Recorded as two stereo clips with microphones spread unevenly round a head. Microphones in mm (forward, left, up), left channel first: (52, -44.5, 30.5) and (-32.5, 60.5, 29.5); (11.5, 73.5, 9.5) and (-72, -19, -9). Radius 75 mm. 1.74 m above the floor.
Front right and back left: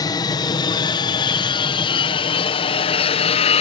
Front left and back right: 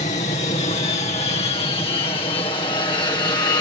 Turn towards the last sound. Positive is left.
turn(degrees=-20)